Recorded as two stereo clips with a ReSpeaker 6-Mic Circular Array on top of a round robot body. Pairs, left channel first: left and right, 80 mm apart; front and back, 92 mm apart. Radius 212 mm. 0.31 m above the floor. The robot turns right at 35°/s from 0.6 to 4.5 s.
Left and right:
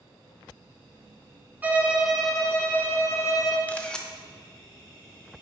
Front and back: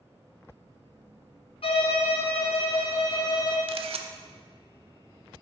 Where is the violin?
20° right, 0.9 m; by 3.6 s 50° left, 0.9 m.